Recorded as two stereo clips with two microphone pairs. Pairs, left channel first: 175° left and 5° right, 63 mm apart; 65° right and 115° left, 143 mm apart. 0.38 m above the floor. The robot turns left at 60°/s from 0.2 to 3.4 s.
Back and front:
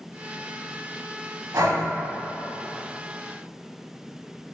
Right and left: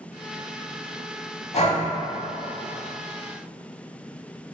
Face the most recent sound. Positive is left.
turn(degrees=-130)